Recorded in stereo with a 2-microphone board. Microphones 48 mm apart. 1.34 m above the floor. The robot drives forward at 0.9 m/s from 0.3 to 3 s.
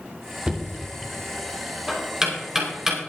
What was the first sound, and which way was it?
Knocking, 25° right (ahead or behind).